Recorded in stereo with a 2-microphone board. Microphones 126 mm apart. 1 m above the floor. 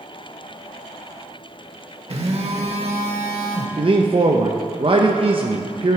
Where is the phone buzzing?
50° right (ahead or behind), 1.0 m.